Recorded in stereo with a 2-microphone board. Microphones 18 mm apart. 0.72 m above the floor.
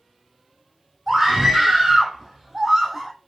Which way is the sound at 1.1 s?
40° right (ahead or behind).